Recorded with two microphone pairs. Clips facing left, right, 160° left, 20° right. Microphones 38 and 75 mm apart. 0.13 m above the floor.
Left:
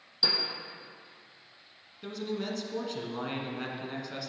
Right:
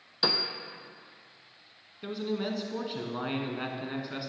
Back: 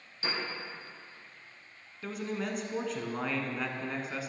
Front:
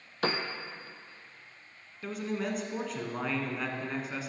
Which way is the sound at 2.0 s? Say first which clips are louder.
Right 2 dB, front 2 dB; 115° right.